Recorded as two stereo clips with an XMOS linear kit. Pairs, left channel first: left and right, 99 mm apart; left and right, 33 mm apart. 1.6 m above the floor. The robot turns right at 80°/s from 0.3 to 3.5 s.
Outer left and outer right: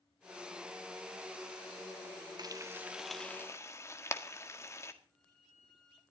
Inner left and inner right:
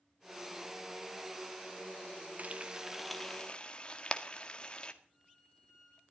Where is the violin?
5° left (ahead or behind), 6.5 m.